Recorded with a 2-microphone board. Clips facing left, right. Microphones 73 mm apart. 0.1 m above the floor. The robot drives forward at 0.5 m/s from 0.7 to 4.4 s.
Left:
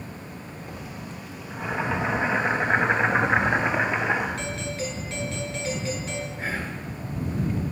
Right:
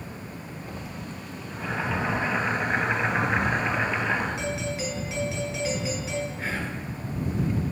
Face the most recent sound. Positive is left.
turn(degrees=5)  # may be behind; listen again after turning